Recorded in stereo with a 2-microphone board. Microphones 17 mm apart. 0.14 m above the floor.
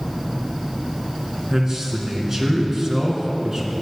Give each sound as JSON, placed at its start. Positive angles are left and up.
{"t": 1.5, "sound": "a man speaking", "side_deg": -25, "distance_m": 2.0}